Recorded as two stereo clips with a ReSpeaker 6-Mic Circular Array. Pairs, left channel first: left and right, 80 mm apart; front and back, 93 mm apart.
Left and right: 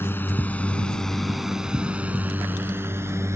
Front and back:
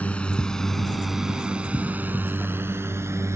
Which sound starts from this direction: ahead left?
A drone, at 0.0 s.